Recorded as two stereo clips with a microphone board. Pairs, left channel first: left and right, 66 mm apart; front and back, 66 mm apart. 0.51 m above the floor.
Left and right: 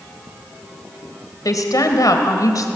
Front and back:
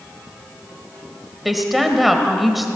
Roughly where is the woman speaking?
Left.